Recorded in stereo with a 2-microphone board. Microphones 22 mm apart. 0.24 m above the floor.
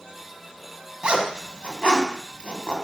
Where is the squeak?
I don't hear a squeak.